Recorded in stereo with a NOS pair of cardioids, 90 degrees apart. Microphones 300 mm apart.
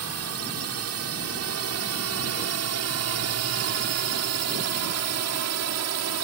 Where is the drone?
55° right; by 6.2 s 65° right.